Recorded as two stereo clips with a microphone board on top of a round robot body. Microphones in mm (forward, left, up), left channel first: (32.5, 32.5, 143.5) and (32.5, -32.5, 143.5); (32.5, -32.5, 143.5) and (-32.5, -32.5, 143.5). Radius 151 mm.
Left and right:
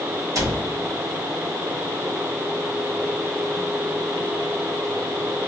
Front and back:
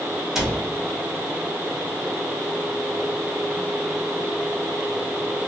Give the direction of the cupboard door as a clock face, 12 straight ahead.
3 o'clock.